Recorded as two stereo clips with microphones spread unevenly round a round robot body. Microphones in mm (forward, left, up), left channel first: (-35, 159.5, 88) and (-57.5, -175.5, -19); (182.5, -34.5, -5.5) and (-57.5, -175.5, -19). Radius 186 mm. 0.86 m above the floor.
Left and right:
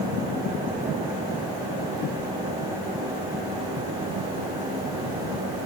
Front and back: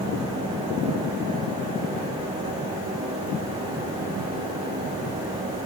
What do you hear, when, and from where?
Only background noise.